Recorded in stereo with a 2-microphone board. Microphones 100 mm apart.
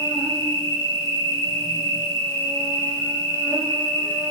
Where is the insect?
45° right (ahead or behind), 9 m.